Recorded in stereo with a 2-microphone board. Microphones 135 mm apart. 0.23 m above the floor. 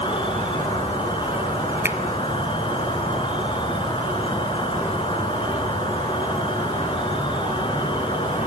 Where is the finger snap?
20° right (ahead or behind), 0.9 m.